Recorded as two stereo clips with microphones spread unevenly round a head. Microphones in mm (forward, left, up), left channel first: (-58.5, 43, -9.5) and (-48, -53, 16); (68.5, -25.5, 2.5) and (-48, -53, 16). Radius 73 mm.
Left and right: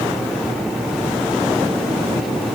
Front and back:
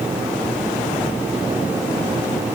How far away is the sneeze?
I don't hear a sneeze.